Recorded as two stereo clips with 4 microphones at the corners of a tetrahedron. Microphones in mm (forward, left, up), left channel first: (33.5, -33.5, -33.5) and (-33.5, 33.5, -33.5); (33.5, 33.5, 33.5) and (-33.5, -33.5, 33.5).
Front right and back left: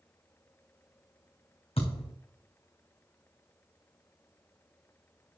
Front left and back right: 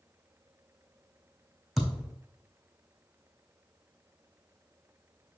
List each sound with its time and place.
1.8 s a thud: 45° right, 3.5 m